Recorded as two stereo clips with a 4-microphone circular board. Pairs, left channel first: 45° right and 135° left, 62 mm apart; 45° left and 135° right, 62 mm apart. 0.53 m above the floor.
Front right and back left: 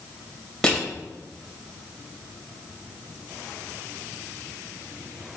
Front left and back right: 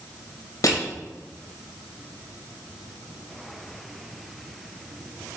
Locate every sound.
0.6 s crushing: 30° left, 2 m